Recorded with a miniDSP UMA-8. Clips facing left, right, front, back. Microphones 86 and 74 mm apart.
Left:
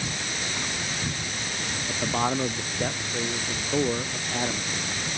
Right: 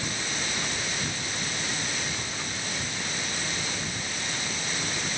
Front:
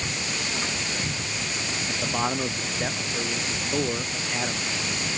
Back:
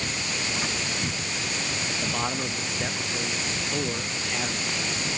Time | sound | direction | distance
1.9 | a man speaking | 75° left | ?